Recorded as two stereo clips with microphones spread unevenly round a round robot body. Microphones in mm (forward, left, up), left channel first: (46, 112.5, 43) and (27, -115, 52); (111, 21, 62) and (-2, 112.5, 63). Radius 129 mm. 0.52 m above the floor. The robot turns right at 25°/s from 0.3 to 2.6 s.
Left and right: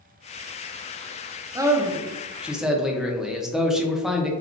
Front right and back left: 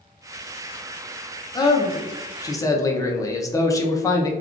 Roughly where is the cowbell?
No cowbell in this recording.